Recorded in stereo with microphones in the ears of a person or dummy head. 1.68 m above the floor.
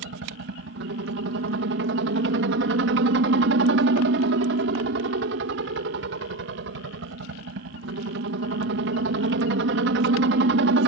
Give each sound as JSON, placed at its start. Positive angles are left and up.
{"t": 0.0, "sound": "a helicopter", "side_deg": -60}